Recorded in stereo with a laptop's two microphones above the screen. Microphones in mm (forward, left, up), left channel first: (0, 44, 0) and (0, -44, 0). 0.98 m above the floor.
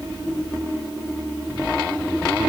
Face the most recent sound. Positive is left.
No sound to turn to.